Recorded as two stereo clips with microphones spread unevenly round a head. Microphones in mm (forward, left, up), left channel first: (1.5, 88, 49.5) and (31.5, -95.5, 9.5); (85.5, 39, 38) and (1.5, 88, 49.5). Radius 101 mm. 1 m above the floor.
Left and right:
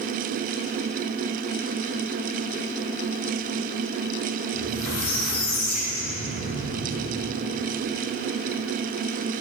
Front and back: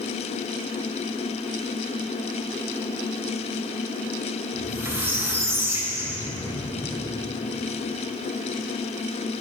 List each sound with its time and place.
4.5 s a squeak: 85° left, 3 m